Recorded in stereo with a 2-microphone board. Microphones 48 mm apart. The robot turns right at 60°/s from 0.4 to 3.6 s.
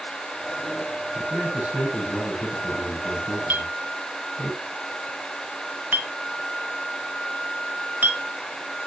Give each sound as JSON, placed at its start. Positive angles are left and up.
{"t": 1.1, "sound": "a man speaking", "azimuth_deg": -55, "distance_m": 9.0}
{"t": 3.5, "sound": "a clink", "side_deg": -35, "distance_m": 0.8}